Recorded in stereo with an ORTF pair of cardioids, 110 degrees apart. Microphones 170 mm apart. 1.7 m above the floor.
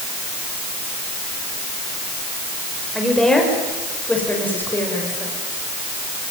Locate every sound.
3.0 s a woman speaking: straight ahead, 7 m; by 5.3 s 15° left, 7 m